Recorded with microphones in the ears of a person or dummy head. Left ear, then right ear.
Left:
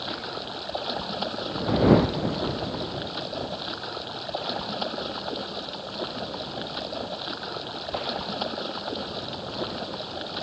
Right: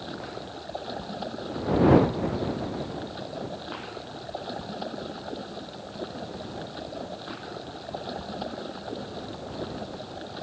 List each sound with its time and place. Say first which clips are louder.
0.0 s running water: left 5 dB; 35° left (ahead or behind)